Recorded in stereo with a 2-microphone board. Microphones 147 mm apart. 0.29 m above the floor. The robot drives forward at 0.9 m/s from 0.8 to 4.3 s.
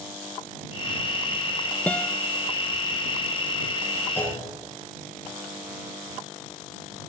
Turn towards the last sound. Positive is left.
turn(degrees=15)  # may be behind; listen again after turning